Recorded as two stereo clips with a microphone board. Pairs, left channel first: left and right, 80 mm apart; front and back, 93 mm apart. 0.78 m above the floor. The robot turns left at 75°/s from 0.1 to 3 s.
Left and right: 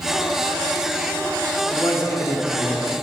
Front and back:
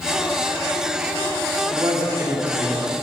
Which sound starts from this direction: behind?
A man speaking, at 1.7 s.